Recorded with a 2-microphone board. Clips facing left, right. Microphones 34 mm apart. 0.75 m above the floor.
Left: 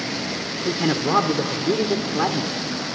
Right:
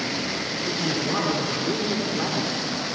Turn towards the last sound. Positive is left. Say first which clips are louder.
# left 6 dB
turn(degrees=40)  # may be behind; listen again after turning